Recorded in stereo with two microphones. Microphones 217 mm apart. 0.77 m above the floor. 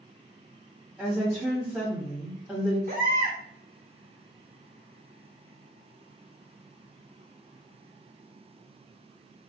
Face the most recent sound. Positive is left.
turn(degrees=-40)  # may be behind; listen again after turning